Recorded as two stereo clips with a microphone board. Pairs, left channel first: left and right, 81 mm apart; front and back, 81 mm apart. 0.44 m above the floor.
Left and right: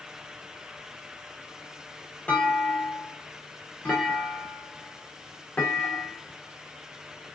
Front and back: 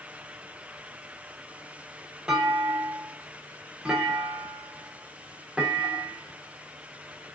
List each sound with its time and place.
2.3 s a clunk: 120° left, 1.5 m